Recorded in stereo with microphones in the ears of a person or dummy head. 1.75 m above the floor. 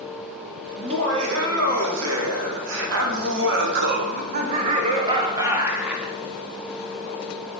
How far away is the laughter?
About 3 m.